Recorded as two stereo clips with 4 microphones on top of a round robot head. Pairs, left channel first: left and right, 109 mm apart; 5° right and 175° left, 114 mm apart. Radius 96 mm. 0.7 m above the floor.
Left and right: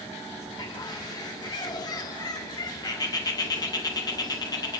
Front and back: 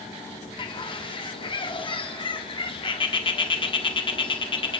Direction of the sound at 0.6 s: 35° left.